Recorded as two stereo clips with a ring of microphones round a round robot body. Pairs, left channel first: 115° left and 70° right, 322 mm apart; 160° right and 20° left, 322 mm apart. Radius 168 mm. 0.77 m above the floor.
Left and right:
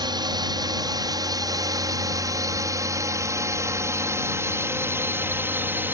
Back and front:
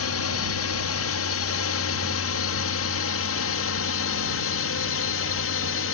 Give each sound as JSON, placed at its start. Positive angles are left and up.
{"t": 0.0, "sound": "a drone", "azimuth_deg": -140}